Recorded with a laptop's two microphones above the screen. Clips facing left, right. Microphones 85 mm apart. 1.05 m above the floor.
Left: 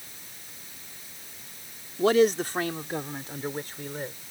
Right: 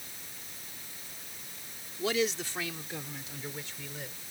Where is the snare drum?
No snare drum in this recording.